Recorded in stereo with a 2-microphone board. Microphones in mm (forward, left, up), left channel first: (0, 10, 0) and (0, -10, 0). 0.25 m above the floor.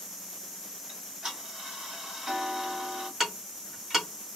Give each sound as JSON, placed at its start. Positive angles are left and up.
{"t": 0.9, "sound": "ticking", "side_deg": -30, "distance_m": 1.6}
{"t": 3.2, "sound": "ticking", "side_deg": -15, "distance_m": 1.2}